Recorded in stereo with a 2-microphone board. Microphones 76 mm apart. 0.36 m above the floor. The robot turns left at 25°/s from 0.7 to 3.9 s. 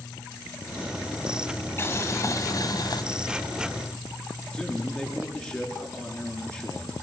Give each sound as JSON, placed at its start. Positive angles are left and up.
{"t": 1.8, "sound": "boiling", "azimuth_deg": 145, "distance_m": 1.9}
{"t": 4.5, "sound": "a man speaking", "side_deg": 15, "distance_m": 6.5}